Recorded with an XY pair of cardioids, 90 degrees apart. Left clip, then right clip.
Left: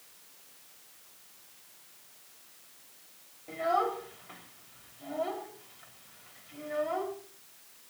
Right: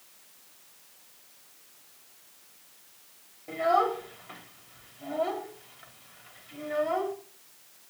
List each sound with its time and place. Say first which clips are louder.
3.5 s a child speaking: right 4 dB; 35° right, 4 m